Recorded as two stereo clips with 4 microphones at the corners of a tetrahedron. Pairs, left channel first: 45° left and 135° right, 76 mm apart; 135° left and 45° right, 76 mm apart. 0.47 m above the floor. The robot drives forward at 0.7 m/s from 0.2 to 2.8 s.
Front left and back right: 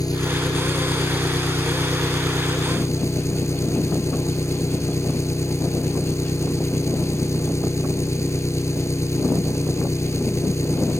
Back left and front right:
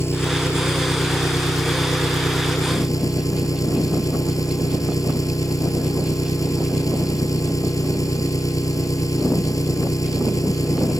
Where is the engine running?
80° left; by 11.0 s 95° left.